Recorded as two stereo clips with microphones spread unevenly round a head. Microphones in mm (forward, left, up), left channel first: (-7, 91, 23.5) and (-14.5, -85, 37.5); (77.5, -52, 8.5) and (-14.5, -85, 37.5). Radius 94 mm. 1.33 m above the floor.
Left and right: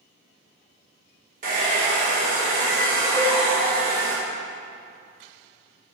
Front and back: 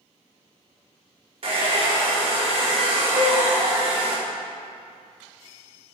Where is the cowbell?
130° right, 2.5 m.